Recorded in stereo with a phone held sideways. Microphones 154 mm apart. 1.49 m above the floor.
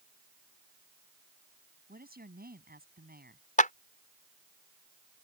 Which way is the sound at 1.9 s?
80° right.